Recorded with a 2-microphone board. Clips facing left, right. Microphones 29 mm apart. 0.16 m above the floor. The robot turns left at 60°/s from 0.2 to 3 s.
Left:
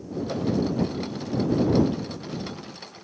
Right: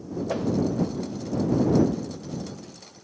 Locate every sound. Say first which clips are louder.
0.3 s a whoosh: right 1 dB; 35° right (ahead or behind); by 0.5 s 20° right (ahead or behind)